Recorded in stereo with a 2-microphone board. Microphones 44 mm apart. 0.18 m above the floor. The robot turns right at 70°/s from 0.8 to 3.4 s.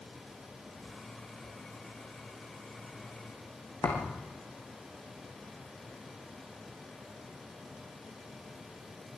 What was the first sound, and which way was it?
A thud, 85° left.